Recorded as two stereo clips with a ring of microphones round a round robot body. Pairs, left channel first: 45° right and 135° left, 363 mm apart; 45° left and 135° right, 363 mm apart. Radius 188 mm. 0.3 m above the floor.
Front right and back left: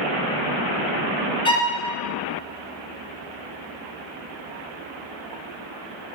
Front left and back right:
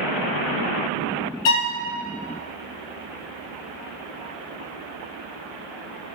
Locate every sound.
1.4 s a violin: 30° left, 1.0 m